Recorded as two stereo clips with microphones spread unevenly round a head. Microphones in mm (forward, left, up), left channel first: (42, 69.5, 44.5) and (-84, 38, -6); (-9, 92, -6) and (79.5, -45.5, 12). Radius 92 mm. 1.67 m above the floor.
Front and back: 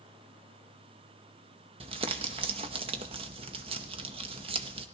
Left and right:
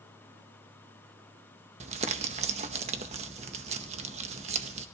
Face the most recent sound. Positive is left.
turn(degrees=-115)